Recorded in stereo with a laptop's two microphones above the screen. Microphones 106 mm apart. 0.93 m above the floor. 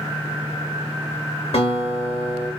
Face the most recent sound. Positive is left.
turn(degrees=65)  # may be behind; listen again after turning